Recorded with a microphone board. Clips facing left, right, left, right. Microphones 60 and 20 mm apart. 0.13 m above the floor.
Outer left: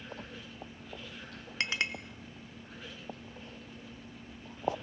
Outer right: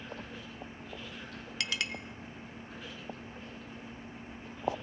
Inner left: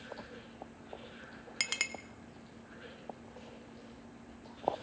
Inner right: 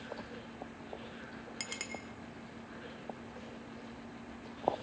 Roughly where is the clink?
Left.